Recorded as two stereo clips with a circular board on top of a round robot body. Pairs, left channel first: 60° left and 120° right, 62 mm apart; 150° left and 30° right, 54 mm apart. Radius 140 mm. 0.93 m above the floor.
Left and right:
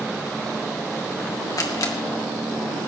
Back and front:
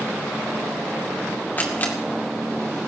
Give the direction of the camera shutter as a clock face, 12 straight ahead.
9 o'clock.